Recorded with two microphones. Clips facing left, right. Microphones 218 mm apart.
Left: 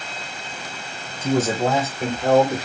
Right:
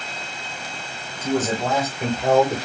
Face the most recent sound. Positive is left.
turn(degrees=-20)  # may be behind; listen again after turning